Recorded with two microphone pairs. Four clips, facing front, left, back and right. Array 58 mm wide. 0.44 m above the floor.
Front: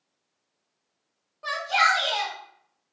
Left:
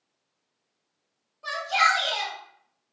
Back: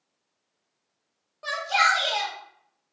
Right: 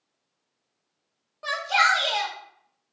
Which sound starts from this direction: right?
A shout, at 1.4 s.